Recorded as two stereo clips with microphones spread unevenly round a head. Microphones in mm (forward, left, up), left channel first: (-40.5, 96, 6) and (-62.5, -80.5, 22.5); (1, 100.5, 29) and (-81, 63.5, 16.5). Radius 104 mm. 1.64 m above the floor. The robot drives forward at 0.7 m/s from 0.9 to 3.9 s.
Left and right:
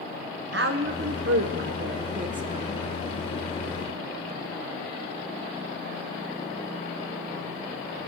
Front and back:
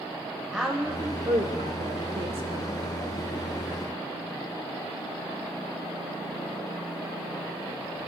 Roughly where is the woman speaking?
Ahead right.